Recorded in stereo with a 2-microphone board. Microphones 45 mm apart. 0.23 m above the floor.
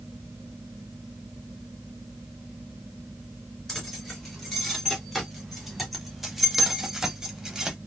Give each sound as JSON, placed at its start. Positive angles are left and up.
{"t": 3.7, "sound": "keys jangling", "side_deg": 5, "distance_m": 2.5}